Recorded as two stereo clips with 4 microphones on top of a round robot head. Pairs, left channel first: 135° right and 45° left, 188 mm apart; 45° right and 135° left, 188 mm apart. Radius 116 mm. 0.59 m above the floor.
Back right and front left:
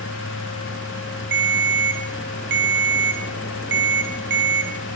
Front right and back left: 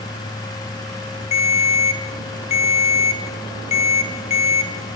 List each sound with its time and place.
1.3 s a ringtone: 15° left, 3 m